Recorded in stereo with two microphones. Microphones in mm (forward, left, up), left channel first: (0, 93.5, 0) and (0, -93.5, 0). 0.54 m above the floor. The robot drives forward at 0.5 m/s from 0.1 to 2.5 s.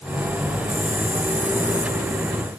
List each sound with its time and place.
Only background noise.